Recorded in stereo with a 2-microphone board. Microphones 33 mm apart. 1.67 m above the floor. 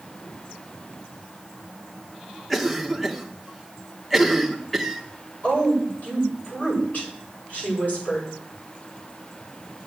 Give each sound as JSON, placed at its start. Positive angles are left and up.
{"t": 2.5, "sound": "a cough", "side_deg": 0, "distance_m": 1.4}
{"t": 5.4, "sound": "a woman speaking", "side_deg": 60, "distance_m": 8.0}